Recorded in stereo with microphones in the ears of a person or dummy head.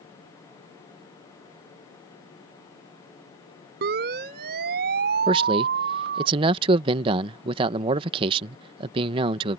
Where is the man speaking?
30° right (ahead or behind).